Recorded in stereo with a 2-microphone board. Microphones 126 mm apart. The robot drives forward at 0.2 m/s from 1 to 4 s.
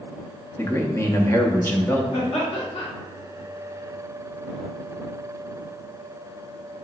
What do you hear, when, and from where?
0.6 s a man speaking: 25° left (ahead or behind), 0.6 m; by 2.0 s 20° left (ahead or behind), 0.6 m
2.1 s laughter: 55° left (ahead or behind), 2.0 m